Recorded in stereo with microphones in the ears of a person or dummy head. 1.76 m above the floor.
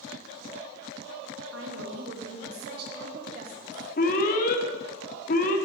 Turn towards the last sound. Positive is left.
turn(degrees=50)  # may be behind; listen again after turning